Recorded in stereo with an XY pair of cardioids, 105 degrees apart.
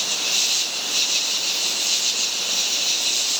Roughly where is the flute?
I don't hear a flute.